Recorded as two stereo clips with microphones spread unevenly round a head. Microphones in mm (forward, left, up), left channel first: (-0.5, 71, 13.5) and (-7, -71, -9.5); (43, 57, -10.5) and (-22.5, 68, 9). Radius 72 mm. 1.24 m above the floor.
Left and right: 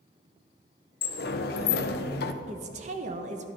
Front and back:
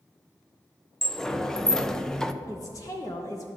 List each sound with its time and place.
1.0 s a sliding door: 65° left, 0.5 m
2.5 s a woman speaking: 55° right, 0.9 m